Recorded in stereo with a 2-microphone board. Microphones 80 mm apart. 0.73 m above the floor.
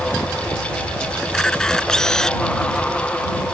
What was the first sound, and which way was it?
A camera shutter, 5° left (ahead or behind).